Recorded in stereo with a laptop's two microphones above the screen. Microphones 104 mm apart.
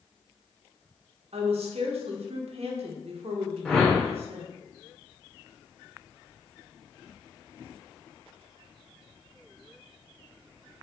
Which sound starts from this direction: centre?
A whoosh, at 3.6 s.